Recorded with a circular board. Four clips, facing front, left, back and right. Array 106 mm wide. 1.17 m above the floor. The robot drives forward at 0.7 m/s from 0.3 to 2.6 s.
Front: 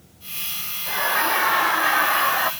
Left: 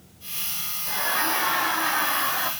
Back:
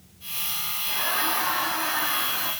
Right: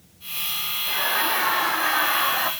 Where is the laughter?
5° right, 2 m; by 2.5 s 15° right, 1.1 m.